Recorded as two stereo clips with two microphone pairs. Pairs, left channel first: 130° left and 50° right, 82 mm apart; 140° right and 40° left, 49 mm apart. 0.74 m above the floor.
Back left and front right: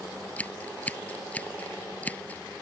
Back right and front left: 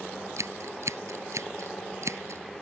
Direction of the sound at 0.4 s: 55° left.